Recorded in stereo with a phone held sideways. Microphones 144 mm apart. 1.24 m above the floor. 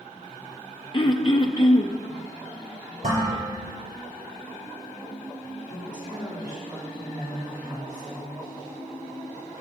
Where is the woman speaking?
25° right (ahead or behind), 3 m.